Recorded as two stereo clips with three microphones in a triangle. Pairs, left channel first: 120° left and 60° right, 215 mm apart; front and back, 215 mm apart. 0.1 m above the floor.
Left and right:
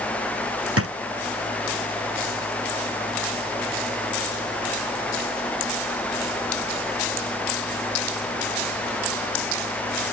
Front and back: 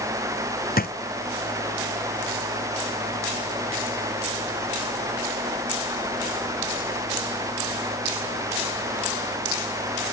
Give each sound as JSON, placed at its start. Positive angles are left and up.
{"t": 0.8, "sound": "a drawer", "azimuth_deg": -50}